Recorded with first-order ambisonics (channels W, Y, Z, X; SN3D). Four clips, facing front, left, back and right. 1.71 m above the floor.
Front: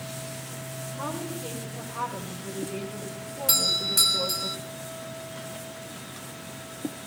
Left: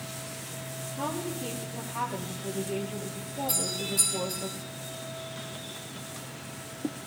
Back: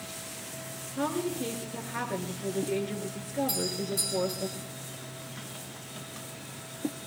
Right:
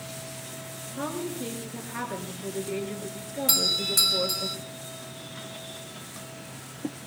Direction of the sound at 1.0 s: 140° right.